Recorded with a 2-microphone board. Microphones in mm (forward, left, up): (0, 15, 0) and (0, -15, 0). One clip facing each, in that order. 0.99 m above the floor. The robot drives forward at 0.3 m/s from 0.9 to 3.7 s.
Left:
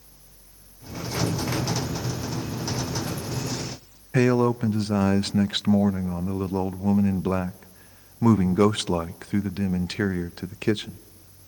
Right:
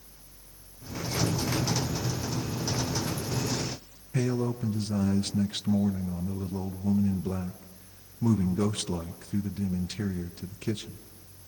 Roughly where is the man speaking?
Left.